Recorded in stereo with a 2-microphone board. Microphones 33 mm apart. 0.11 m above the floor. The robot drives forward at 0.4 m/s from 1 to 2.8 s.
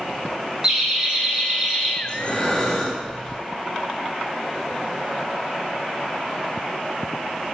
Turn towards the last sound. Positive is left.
turn(degrees=20)  # may be behind; listen again after turning